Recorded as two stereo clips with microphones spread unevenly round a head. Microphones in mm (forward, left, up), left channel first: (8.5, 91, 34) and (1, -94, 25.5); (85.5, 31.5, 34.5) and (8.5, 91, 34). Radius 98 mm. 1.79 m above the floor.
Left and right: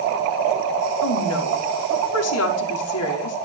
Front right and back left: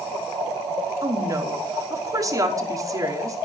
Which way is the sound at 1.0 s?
85° left.